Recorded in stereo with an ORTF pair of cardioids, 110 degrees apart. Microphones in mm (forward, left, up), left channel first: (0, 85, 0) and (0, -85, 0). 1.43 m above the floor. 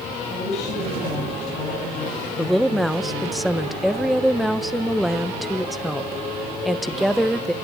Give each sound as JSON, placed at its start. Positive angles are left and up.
{"t": 0.3, "sound": "a woman speaking", "azimuth_deg": 40, "distance_m": 8.5}
{"t": 2.4, "sound": "a woman speaking", "azimuth_deg": 0, "distance_m": 1.1}